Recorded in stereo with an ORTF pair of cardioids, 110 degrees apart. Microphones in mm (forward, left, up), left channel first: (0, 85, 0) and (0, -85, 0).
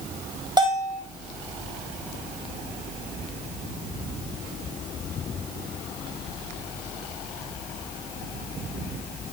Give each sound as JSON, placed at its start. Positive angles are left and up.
{"t": 0.6, "sound": "a bell", "azimuth_deg": -25, "distance_m": 3.5}